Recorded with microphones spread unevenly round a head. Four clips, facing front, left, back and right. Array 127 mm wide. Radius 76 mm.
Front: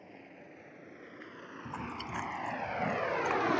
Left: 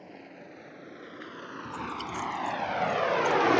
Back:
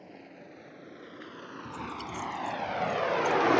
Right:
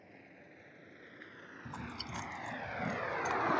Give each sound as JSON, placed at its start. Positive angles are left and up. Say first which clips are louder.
{"t": 0.0, "sound": "a vehicle", "louder": "left 11 dB, back 3 dB", "azimuth_deg": 75}
{"t": 1.6, "sound": "chewing", "louder": "left 9 dB, back 2 dB", "azimuth_deg": 20}